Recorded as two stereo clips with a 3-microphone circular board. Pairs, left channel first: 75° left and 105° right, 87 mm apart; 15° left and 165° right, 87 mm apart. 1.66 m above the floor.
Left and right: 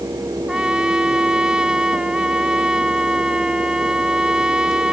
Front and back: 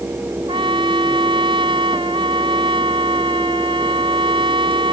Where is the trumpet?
175° left.